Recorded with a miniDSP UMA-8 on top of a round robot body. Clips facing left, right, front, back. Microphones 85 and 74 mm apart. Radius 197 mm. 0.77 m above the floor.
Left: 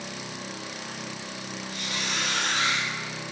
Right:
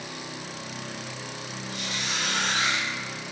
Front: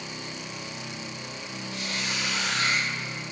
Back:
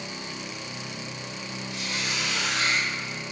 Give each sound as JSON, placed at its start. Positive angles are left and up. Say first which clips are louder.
{"t": 1.7, "sound": "a squeak", "louder": "even, even", "azimuth_deg": -135, "distance_m": 2.0}